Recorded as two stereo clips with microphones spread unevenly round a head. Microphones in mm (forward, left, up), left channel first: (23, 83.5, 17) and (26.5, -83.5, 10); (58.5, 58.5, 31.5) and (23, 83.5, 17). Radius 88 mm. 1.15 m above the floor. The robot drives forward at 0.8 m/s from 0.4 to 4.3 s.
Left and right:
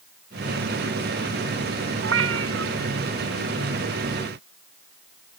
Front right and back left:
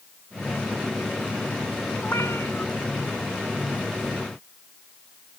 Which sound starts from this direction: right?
A cat meowing, at 2.0 s.